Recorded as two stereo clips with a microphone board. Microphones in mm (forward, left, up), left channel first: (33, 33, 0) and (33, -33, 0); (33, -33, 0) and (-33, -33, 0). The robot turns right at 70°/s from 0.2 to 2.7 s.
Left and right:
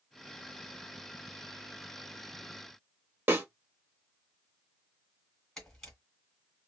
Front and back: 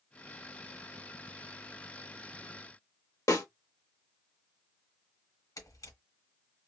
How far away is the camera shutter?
About 2.0 m.